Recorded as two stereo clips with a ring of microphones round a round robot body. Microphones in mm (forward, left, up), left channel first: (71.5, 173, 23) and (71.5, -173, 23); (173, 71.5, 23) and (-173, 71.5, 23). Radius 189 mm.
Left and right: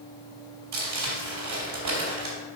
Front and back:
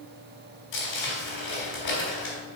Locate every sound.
0.7 s crumpling: 55° right, 3.5 m